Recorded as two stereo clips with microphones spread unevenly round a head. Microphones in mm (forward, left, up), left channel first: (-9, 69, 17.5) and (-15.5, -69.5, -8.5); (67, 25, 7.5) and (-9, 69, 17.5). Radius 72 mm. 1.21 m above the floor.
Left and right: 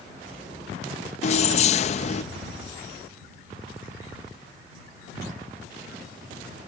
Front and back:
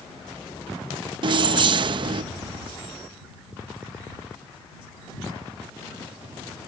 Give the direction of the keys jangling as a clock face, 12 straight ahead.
8 o'clock.